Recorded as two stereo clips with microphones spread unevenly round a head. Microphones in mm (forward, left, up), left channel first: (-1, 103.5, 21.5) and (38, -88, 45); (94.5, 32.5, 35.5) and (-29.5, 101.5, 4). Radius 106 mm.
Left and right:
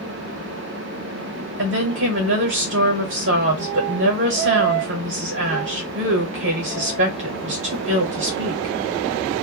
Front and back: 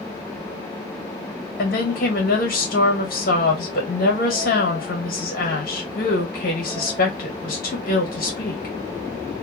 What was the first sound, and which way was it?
A woman speaking, 55° right.